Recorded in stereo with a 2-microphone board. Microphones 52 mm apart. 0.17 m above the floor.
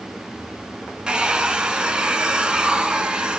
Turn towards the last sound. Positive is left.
turn(degrees=-15)  # may be behind; listen again after turning